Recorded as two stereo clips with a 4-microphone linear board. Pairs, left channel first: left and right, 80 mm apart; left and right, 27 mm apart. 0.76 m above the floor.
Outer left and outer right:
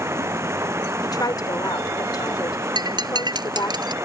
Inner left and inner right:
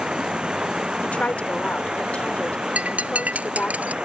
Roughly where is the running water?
Right.